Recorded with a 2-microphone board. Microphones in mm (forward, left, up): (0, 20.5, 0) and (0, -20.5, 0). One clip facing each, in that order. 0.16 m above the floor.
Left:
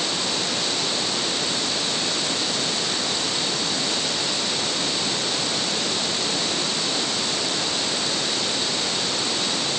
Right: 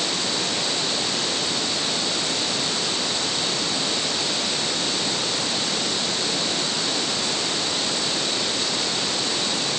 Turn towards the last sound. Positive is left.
No sound to turn to.